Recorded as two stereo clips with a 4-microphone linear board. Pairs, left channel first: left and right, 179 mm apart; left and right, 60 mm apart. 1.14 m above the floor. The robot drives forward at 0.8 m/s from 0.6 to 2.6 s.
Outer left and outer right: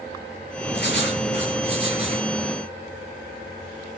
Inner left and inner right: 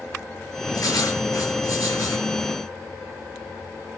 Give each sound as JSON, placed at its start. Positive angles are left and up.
{"t": 0.7, "sound": "writing", "side_deg": 65, "distance_m": 9.5}